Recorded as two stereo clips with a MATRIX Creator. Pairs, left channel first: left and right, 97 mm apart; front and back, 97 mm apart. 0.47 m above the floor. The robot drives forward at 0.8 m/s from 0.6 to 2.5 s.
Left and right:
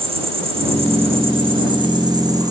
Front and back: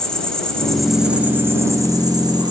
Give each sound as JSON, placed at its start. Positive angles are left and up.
{"t": 0.0, "sound": "an insect", "azimuth_deg": -80, "distance_m": 1.2}